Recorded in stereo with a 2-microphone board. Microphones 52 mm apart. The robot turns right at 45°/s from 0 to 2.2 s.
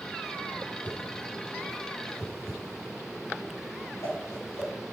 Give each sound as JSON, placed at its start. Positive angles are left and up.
{"t": 0.8, "sound": "a whoosh", "side_deg": 35, "distance_m": 9.0}